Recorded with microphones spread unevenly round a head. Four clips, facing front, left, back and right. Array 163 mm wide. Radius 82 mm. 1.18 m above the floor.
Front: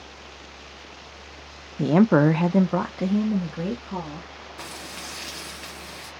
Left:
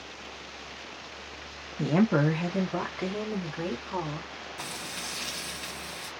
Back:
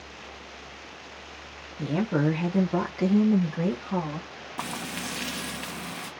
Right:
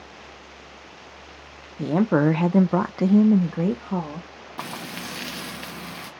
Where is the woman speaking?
5° right, 0.5 m; by 4.3 s 105° right, 1.2 m.